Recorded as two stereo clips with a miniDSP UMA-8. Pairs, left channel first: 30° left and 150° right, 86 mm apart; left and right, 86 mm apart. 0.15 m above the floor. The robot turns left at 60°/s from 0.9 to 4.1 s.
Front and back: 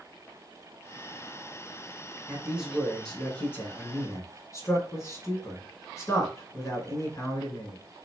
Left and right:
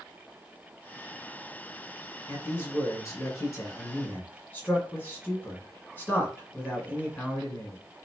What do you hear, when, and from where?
2.3 s a man speaking: 150° left, 1.6 m; by 7.8 s 40° left, 1.6 m